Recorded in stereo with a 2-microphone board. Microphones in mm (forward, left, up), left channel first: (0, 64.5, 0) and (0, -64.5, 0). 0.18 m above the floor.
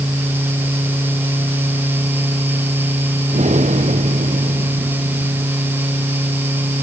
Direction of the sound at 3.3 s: 65° right (ahead or behind).